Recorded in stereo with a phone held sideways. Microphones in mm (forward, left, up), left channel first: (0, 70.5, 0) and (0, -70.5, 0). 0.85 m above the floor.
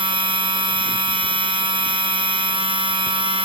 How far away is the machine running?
About 0.8 m.